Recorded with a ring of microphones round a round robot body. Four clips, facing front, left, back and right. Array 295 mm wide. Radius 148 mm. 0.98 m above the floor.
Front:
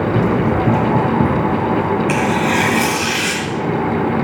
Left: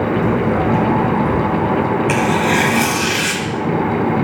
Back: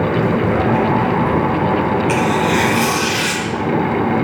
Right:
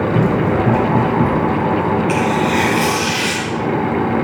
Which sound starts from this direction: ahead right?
Running footsteps, at 0.1 s.